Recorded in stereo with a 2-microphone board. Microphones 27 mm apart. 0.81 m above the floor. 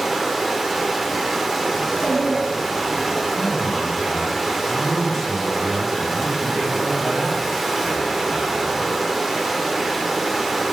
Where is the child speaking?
80° left, 1.7 m.